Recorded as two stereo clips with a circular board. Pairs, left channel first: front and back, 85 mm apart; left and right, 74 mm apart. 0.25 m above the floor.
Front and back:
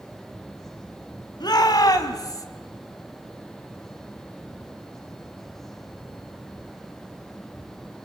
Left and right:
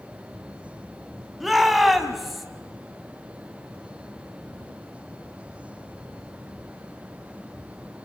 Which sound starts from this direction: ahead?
A shout, at 1.4 s.